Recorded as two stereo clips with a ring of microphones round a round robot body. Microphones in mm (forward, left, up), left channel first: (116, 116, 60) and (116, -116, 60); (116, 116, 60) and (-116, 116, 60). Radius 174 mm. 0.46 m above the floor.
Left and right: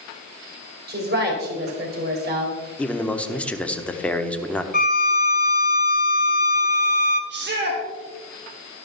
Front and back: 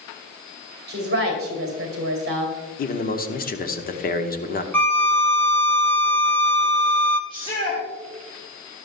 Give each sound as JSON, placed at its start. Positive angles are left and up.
{"t": 0.9, "sound": "a woman speaking", "azimuth_deg": -135, "distance_m": 2.5}
{"t": 2.8, "sound": "a man speaking", "azimuth_deg": 10, "distance_m": 1.3}
{"t": 4.7, "sound": "a violin", "azimuth_deg": 80, "distance_m": 1.3}
{"t": 7.3, "sound": "a shout", "azimuth_deg": -65, "distance_m": 2.5}